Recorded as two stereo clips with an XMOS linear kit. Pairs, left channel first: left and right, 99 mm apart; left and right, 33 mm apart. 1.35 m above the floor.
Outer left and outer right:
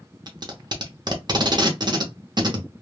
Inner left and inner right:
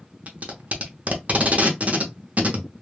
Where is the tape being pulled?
45° right (ahead or behind), 0.6 m.